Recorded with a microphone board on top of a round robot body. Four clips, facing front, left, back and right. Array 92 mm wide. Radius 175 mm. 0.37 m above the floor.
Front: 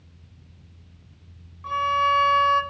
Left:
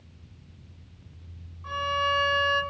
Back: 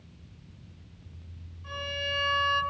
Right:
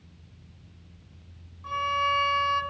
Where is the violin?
Straight ahead, 6 m.